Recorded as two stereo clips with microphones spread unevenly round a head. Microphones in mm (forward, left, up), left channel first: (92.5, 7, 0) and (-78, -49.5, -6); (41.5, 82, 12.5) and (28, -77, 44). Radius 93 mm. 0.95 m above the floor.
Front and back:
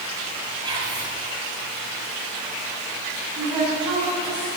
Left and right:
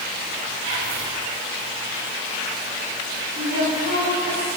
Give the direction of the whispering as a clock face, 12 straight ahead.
3 o'clock.